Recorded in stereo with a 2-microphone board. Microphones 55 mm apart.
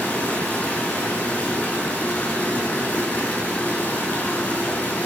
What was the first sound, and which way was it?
Running water, 30° left (ahead or behind).